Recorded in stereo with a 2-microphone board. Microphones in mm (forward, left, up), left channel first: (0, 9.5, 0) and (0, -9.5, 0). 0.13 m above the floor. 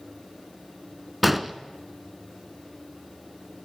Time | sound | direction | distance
1.2 | an explosion | 10° right (ahead or behind) | 1.1 m